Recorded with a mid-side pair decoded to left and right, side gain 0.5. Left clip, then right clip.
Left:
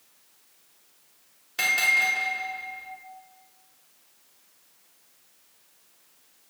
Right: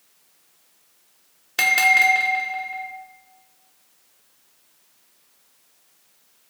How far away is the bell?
About 2.5 m.